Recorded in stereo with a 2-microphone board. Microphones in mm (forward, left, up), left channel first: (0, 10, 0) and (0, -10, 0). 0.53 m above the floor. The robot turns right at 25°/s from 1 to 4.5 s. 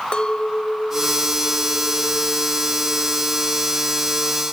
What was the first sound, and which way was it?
A clink, 130° left.